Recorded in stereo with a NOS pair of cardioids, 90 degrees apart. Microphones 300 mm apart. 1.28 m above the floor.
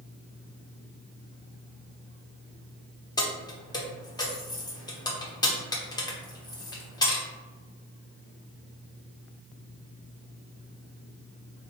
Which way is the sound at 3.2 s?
15° left.